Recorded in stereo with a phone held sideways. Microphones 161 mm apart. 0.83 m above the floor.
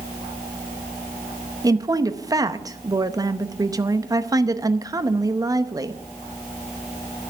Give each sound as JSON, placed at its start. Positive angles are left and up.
{"t": 1.6, "sound": "a woman speaking", "side_deg": -25, "distance_m": 0.8}